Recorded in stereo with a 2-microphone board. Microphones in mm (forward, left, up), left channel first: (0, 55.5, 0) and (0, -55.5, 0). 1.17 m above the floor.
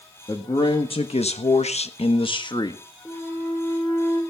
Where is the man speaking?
40° left (ahead or behind), 1.9 m; by 2.8 s 35° left (ahead or behind), 1.8 m.